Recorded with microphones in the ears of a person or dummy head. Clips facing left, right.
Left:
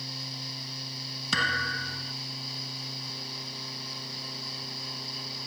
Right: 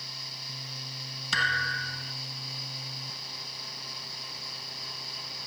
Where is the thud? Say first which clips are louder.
Left 2 dB; 85° left.